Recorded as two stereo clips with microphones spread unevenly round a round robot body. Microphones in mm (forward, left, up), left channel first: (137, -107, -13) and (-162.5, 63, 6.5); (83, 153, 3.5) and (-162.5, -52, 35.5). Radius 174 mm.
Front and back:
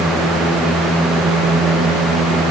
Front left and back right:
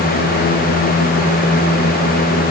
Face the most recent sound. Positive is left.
No sound to turn to.